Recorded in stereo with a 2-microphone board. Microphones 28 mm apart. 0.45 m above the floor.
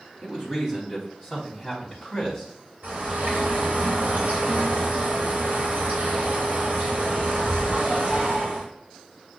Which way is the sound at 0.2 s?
15° right (ahead or behind).